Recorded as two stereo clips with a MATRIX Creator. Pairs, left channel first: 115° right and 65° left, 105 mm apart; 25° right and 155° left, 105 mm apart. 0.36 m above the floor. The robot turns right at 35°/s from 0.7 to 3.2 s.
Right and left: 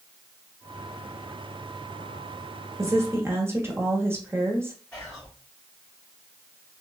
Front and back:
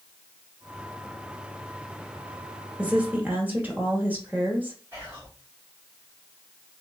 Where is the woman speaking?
90° left, 1.0 m; by 4.8 s 105° left, 1.0 m.